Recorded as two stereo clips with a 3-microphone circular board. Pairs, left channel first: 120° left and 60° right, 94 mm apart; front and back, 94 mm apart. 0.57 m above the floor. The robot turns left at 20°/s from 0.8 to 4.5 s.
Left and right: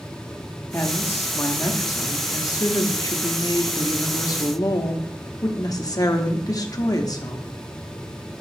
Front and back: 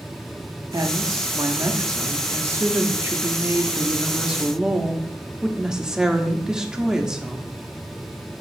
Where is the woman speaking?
175° left, 0.7 m; by 7.5 s 100° left, 0.7 m.